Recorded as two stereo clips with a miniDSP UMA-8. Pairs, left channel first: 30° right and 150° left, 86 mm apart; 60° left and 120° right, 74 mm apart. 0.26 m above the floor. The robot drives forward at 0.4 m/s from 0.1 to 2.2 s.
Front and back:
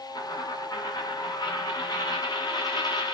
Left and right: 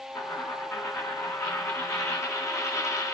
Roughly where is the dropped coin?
Ahead.